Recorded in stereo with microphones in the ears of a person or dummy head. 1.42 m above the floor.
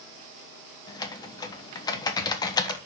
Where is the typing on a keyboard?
20° left (ahead or behind), 1.0 m.